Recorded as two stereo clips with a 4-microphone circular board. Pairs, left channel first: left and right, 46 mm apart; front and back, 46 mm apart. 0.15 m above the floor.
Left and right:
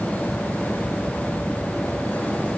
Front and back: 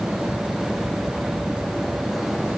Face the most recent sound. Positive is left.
No sound to turn to.